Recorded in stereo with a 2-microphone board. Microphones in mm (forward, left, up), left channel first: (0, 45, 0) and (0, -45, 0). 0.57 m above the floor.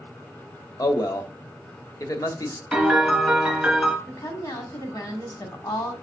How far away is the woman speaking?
About 1.7 m.